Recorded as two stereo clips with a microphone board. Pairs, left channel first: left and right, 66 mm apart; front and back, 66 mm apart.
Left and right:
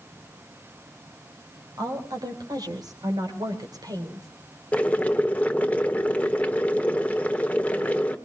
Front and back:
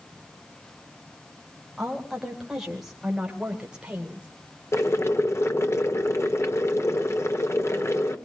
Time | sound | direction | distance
1.8 | a woman speaking | 90° right | 4.5 m
4.7 | boiling | 30° left | 1.2 m